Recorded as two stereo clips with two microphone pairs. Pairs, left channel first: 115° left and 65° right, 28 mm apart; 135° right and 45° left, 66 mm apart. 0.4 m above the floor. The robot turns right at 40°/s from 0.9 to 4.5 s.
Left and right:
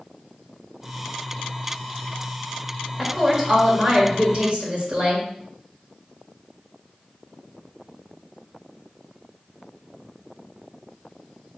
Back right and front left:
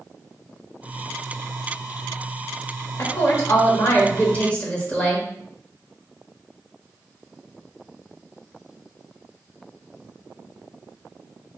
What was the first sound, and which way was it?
A woman speaking, 135° right.